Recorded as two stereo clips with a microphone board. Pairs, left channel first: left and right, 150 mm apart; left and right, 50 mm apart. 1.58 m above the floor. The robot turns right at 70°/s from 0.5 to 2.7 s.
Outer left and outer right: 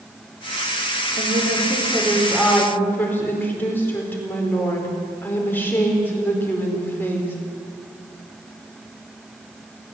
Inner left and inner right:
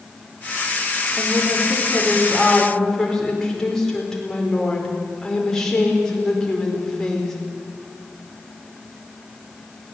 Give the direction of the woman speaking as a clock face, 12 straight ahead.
3 o'clock.